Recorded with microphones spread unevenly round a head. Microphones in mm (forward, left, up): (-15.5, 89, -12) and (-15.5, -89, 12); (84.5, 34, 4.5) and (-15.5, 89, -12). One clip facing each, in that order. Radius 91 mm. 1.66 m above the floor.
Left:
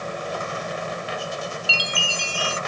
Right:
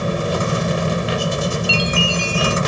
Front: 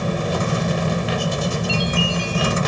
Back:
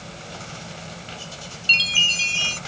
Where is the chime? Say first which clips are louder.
Right 10 dB, front 11 dB; 170° left.